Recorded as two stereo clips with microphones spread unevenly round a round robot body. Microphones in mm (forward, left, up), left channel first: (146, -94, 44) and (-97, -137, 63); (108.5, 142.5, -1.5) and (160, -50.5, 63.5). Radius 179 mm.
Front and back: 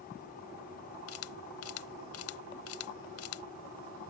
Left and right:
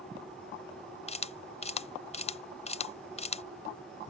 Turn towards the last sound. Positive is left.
turn(degrees=45)